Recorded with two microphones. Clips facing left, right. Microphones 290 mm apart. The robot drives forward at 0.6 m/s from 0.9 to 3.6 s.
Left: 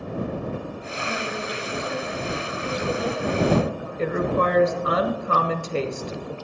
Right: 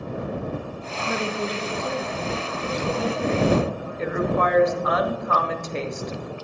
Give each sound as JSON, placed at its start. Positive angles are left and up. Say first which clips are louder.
{"t": 1.1, "sound": "a woman speaking", "louder": "right 5 dB", "side_deg": -75, "distance_m": 0.7}
{"t": 4.0, "sound": "a woman speaking", "louder": "left 1 dB", "side_deg": 35, "distance_m": 0.9}